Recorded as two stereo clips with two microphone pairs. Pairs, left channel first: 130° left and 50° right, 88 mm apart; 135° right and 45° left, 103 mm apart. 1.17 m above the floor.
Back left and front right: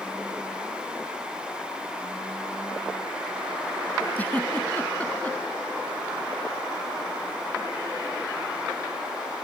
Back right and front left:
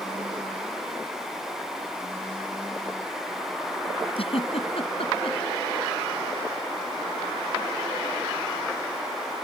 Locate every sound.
4.2 s a giggle: 155° right